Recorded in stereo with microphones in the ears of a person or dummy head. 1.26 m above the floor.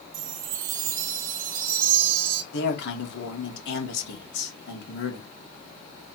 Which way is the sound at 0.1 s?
50° right (ahead or behind).